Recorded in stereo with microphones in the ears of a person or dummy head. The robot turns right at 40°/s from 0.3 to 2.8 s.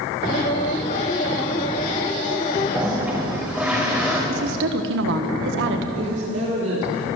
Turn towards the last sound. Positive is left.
turn(degrees=-75)  # may be behind; listen again after turning